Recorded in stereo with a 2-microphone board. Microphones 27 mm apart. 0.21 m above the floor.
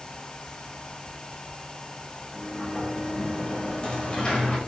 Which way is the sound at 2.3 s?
35° left (ahead or behind).